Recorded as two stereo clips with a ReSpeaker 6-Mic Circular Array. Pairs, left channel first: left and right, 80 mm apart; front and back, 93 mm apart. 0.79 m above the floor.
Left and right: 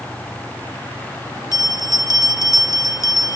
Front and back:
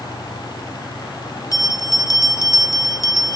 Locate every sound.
1.5 s a bell: 45° left, 0.5 m